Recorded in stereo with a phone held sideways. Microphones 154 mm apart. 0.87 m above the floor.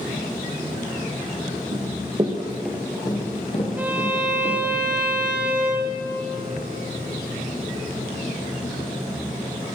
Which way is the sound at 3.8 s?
10° right (ahead or behind).